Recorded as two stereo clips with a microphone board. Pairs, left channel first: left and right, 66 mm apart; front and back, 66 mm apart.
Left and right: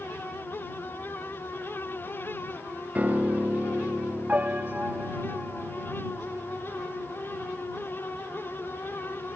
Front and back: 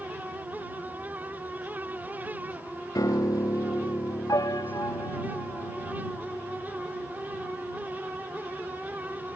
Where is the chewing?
I don't hear chewing.